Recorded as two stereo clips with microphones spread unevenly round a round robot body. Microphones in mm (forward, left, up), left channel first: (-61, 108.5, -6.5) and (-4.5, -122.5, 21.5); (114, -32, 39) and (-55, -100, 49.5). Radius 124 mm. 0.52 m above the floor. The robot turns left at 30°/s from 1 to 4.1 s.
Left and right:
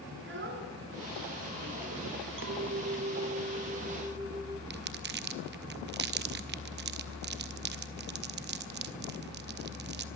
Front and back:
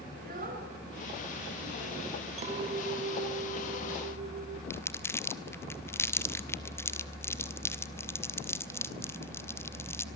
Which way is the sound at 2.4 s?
105° right.